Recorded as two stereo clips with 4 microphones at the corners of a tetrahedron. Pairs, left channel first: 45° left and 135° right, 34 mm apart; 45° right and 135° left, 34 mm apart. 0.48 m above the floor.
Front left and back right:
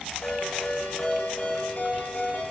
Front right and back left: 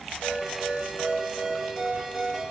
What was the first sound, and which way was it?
A ringtone, 55° left.